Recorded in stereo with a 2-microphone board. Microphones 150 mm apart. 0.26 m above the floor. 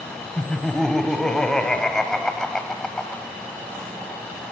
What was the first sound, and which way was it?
Laughter, 5° left (ahead or behind).